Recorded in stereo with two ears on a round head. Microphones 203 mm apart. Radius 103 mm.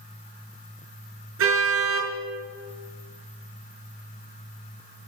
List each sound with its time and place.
1.4 s a car horn: 70° right (ahead or behind), 6 m